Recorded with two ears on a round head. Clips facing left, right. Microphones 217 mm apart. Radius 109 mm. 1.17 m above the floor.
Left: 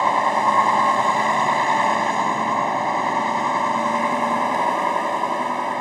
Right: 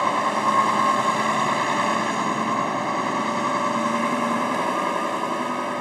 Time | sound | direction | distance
0.0 | a vehicle | 15° right (ahead or behind) | ?